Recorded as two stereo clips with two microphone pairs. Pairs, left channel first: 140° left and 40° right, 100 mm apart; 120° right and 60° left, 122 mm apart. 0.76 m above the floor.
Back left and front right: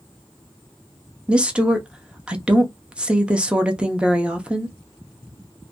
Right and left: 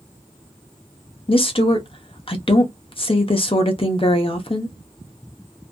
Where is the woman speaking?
115° right, 0.6 m.